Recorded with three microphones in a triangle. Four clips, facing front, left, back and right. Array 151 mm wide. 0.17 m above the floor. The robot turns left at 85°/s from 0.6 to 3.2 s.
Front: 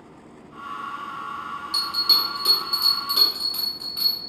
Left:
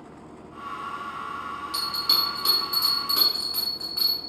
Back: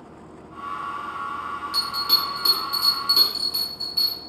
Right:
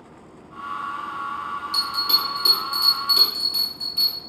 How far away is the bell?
About 1.2 m.